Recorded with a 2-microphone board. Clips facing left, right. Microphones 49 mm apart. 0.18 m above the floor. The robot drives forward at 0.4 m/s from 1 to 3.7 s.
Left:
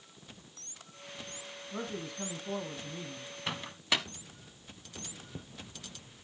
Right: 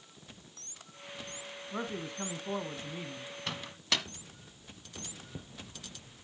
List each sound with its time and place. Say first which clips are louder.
1.7 s a man speaking: right 1 dB; 35° right (ahead or behind), 1.5 m
3.5 s a microwave: left 2 dB; 15° left (ahead or behind), 0.8 m